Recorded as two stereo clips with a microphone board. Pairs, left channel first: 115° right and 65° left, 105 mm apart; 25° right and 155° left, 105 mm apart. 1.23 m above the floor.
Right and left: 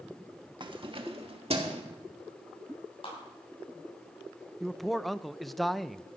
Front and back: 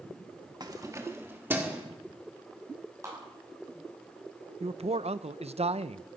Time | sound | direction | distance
0.6 | keys jangling | 110° left | 1.2 m
3.0 | a clap | 145° right | 7.5 m
4.6 | a man speaking | 160° left | 0.5 m